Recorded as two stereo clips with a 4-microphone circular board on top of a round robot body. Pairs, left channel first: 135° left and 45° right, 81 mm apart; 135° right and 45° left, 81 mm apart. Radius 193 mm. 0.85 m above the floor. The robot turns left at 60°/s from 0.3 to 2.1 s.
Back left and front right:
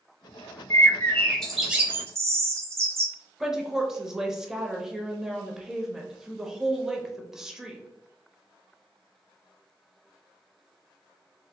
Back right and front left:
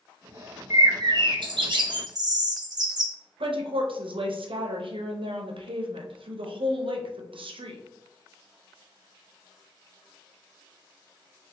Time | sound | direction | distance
0.7 | a bird | 95° left | 1.0 m
3.4 | a woman speaking | 40° left | 0.8 m